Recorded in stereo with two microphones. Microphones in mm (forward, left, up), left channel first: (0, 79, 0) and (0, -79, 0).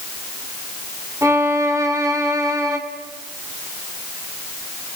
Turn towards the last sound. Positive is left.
turn(degrees=-20)  # may be behind; listen again after turning